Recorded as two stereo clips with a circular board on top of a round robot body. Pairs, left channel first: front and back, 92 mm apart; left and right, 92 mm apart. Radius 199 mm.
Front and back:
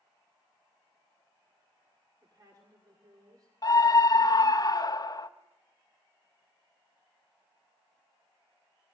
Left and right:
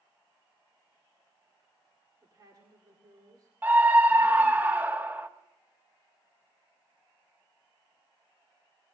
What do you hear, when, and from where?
2.2 s a woman speaking: 135° right, 2.5 m
3.6 s a scream: 25° right, 1.4 m